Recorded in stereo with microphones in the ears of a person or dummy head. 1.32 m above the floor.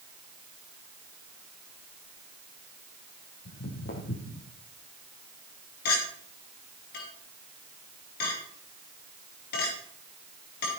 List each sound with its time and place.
3.5 s footsteps: 55° left (ahead or behind), 3 m
5.8 s a clink: 60° left (ahead or behind), 4.5 m